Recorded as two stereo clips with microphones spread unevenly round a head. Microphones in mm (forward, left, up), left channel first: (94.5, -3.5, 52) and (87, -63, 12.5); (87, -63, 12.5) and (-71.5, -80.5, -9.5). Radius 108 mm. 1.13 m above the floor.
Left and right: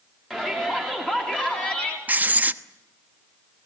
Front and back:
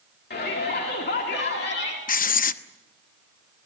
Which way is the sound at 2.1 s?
25° right.